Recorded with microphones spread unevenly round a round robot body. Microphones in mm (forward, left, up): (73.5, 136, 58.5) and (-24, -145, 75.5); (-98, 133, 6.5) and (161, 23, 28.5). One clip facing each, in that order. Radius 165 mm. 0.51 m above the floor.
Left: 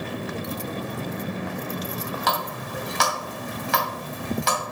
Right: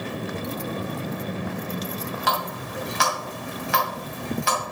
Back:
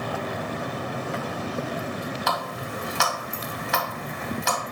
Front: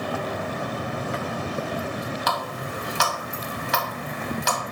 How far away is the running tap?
About 3 m.